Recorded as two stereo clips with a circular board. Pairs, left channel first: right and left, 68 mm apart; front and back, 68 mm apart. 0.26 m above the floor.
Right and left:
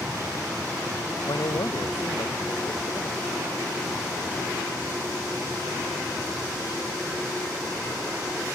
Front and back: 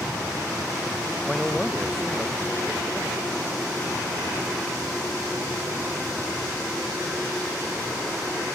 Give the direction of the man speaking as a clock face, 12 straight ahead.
3 o'clock.